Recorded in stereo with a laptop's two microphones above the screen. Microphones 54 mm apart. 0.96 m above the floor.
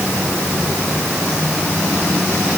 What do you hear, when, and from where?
Only background noise.